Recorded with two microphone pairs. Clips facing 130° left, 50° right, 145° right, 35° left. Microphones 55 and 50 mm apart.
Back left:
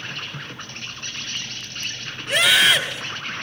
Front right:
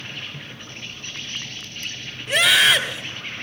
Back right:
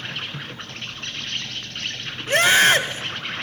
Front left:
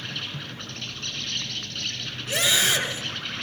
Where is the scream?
140° right, 2 m.